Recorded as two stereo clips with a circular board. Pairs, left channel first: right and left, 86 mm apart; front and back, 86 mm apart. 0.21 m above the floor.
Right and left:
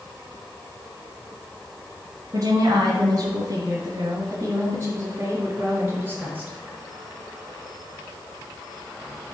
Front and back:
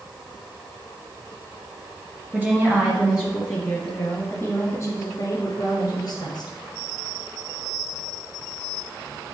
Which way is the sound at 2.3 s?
120° left.